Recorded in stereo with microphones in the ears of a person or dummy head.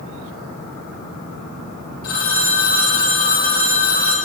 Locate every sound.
2.0 s a phone ringing: 45° left (ahead or behind), 4.5 m